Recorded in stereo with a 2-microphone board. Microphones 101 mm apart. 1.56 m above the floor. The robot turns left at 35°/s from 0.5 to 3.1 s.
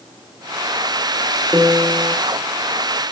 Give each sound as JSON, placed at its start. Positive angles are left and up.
{"t": 1.5, "sound": "a piano", "side_deg": -10, "distance_m": 1.3}